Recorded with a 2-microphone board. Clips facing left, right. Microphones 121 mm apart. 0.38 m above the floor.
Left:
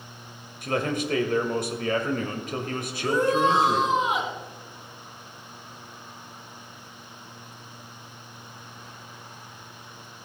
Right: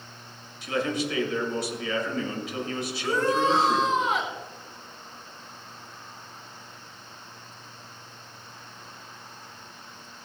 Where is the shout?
15° left (ahead or behind), 4.5 m.